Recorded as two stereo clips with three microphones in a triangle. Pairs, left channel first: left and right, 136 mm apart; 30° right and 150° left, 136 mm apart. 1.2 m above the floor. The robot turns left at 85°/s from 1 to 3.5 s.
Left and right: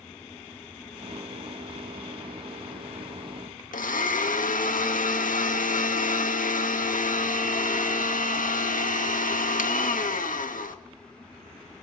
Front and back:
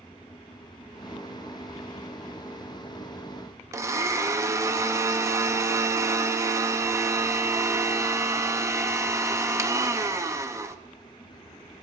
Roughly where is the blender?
Left.